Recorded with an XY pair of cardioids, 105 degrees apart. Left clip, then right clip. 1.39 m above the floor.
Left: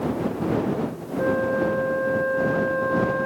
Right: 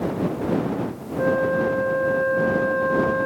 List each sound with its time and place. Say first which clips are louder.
1.2 s a flute: right 2 dB; 10° right